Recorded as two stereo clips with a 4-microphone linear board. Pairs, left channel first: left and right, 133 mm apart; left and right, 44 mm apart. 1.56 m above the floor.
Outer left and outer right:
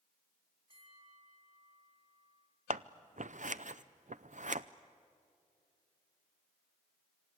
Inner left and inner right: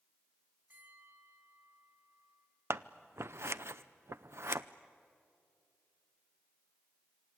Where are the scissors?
70° right (ahead or behind), 0.6 m.